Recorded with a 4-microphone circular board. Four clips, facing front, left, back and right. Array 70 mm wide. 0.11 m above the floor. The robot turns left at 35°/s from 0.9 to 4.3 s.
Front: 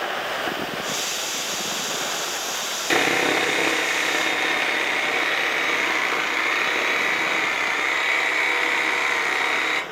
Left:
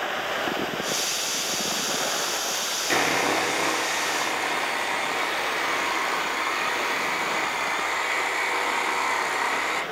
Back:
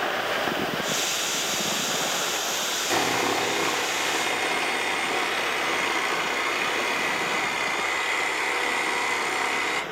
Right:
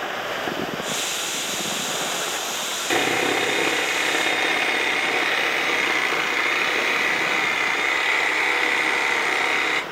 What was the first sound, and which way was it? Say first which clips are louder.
Sawing: right 2 dB, front 4 dB; straight ahead.